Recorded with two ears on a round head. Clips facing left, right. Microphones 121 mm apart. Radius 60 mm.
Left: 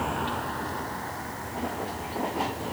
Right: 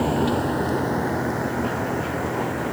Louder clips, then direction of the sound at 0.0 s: Right 9 dB; 40° right (ahead or behind).